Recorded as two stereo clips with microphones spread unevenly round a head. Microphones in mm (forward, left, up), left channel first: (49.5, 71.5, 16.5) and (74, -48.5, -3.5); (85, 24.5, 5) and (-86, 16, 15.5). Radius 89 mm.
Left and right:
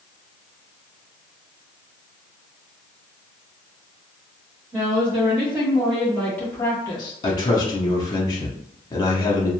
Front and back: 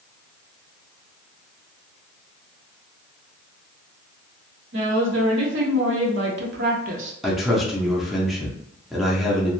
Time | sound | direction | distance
4.7 | a woman speaking | 155° right | 1.5 m
7.2 | a man speaking | 95° left | 0.6 m